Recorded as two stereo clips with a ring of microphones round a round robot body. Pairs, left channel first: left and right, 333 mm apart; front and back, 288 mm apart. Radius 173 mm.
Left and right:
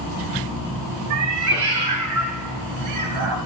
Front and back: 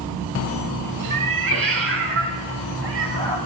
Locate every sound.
1.1 s a cat meowing: 130° right, 1.1 m; by 3.4 s 125° right, 2 m